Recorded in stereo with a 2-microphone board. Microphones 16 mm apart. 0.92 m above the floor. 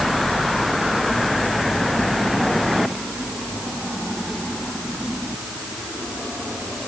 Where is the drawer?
I don't hear a drawer.